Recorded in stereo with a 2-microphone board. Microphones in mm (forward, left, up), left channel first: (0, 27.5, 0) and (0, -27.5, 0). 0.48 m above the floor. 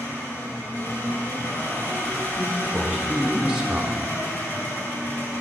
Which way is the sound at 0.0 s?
40° left (ahead or behind).